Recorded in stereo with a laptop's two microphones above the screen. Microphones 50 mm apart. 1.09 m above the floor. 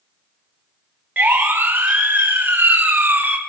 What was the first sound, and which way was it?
A siren, 30° right (ahead or behind).